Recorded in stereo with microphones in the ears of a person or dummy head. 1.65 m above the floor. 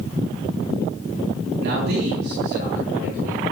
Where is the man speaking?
70° right (ahead or behind), 2.5 m; by 3.5 s 50° right (ahead or behind), 4.5 m.